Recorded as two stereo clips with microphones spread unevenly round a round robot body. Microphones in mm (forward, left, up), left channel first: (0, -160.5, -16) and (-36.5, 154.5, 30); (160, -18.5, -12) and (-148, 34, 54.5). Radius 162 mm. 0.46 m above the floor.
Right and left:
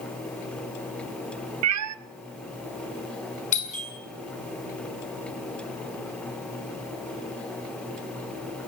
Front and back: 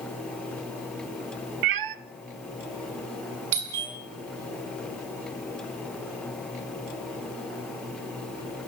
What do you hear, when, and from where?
1.6 s a cat meowing: 140° left, 0.7 m
3.5 s a doorbell: 150° right, 6 m